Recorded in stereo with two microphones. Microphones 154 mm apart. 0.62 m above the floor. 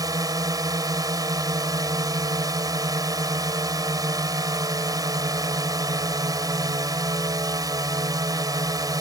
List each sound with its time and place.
0.0 s a drone: 25° right (ahead or behind)